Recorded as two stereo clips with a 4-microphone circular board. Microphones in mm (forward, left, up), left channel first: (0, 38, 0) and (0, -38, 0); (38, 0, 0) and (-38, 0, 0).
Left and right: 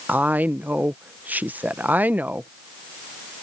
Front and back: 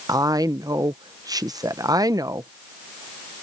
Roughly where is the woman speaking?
Behind right.